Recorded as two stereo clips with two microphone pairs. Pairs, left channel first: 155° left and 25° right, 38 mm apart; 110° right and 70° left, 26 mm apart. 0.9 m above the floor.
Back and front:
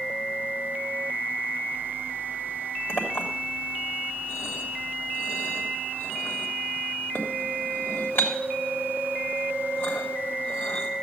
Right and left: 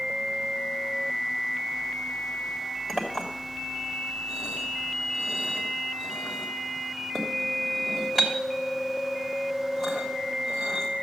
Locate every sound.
2.9 s a clink: 170° left, 2.5 m